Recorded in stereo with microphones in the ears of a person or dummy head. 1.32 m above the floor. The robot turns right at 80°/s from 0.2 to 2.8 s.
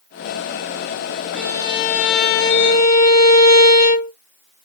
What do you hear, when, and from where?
1.4 s a violin: 10° left, 0.6 m; by 4.1 s 125° left, 0.6 m